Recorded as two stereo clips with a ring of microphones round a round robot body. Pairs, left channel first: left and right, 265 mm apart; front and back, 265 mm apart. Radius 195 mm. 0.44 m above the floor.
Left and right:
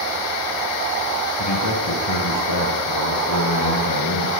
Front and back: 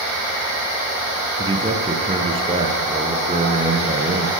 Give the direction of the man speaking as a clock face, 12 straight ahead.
8 o'clock.